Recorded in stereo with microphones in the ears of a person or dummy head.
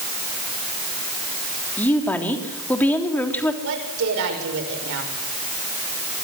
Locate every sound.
1.8 s a woman speaking: 10° left (ahead or behind), 3.5 m
3.6 s a woman speaking: 70° right (ahead or behind), 6.5 m